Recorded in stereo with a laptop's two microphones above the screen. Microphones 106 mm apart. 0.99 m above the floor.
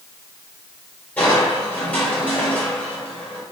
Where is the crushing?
15° left (ahead or behind), 3.5 m.